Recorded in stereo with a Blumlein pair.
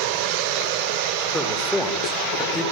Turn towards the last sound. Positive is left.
turn(degrees=5)